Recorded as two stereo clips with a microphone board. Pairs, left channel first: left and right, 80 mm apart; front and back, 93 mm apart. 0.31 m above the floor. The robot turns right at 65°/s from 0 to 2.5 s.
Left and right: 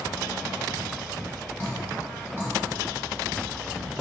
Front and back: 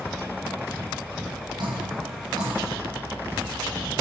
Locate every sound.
1.6 s dripping: 155° left, 1.7 m; by 2.5 s 145° right, 1.7 m